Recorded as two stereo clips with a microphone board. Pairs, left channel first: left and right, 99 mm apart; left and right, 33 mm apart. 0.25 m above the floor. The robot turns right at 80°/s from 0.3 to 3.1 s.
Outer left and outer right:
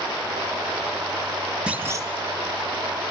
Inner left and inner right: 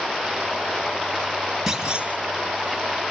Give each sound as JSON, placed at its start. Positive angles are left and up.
{"t": 1.7, "sound": "a clunk", "azimuth_deg": -170, "distance_m": 3.0}